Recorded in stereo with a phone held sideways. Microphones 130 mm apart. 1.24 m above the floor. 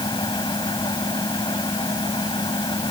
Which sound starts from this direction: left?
A fan, at 0.0 s.